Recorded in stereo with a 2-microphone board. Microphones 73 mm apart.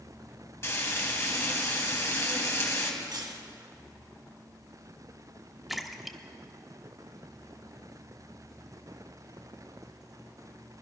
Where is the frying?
35° left (ahead or behind), 2.5 m.